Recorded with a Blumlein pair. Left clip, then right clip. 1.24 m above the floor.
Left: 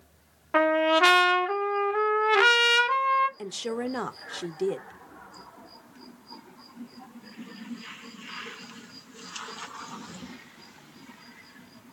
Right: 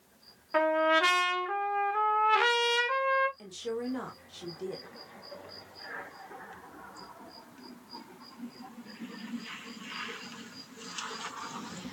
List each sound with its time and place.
0.5 s a trumpet: 20° left, 0.7 m
3.4 s a woman speaking: 30° left, 0.7 m